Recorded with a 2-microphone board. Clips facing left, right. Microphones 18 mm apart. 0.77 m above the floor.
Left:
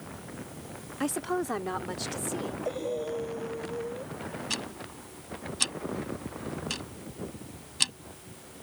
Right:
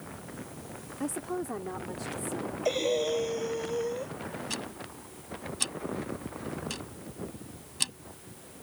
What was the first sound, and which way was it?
A woman speaking, 60° left (ahead or behind).